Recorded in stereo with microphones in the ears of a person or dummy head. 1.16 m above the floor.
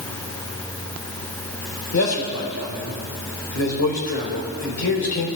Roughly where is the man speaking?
Left.